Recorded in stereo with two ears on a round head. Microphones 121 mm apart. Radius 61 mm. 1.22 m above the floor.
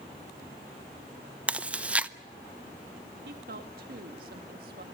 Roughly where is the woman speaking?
Right.